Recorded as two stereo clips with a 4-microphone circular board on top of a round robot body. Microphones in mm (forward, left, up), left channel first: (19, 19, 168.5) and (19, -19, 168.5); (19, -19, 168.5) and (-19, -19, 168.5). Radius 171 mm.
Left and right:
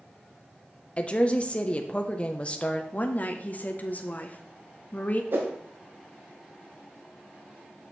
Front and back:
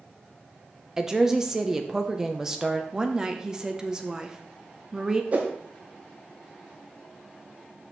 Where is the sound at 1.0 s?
115° left, 0.9 m.